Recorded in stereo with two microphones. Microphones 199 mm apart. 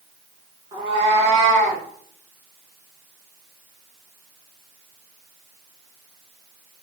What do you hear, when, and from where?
0.7 s a cat meowing: 20° right (ahead or behind), 1.1 m; by 1.8 s 40° right (ahead or behind), 1.5 m